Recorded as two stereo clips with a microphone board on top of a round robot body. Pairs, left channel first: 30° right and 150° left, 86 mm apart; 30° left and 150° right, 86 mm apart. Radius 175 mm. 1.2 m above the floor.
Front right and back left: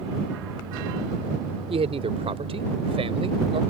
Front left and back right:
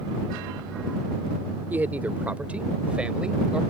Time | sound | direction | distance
1.7 | a man speaking | 135° left | ?